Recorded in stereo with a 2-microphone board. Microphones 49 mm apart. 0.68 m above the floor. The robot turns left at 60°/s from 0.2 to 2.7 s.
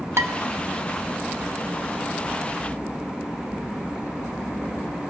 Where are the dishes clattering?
70° right (ahead or behind), 1.1 m; by 0.3 s 65° right (ahead or behind), 1.1 m.